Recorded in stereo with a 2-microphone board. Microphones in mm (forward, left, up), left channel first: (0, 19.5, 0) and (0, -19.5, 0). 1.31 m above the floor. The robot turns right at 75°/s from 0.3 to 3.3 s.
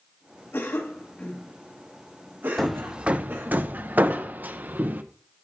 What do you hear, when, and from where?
0.5 s a cough: 85° left, 1.3 m; by 3.6 s 60° right (ahead or behind), 1.3 m
2.6 s hammering: 5° left (ahead or behind), 0.6 m; by 5.0 s 50° right (ahead or behind), 0.6 m